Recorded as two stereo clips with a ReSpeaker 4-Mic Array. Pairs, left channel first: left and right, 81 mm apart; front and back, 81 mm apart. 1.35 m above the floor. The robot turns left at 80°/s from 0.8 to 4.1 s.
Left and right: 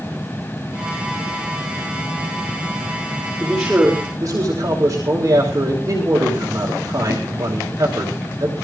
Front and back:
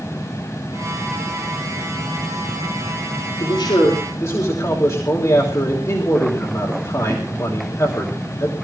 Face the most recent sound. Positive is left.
turn(degrees=-45)